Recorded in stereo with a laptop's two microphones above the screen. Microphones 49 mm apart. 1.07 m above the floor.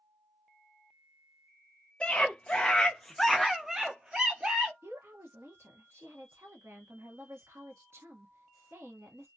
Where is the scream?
20° left (ahead or behind), 0.9 m; by 4.7 s 25° right (ahead or behind), 0.8 m.